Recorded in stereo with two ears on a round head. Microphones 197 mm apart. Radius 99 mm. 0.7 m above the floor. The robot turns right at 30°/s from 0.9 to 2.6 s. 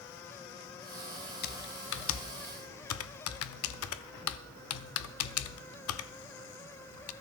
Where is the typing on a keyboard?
45° left (ahead or behind), 0.7 m; by 7.1 s 70° left (ahead or behind), 0.7 m.